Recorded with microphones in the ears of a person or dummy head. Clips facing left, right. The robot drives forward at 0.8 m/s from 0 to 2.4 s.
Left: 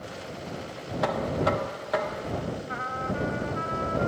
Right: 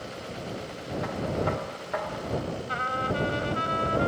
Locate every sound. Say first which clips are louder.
1.0 s knocking: left 4 dB; 75° left (ahead or behind); by 2.6 s 40° left (ahead or behind)
2.7 s a trumpet: right 2 dB; 50° right (ahead or behind)